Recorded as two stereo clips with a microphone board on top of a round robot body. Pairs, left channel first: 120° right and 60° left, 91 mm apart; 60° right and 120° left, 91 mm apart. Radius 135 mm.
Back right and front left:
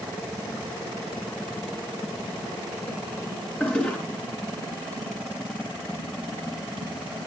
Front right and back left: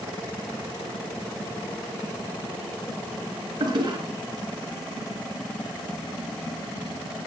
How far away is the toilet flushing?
About 3.5 m.